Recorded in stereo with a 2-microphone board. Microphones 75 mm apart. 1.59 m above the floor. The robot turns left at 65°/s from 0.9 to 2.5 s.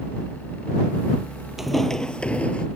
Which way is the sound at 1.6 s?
5° right (ahead or behind).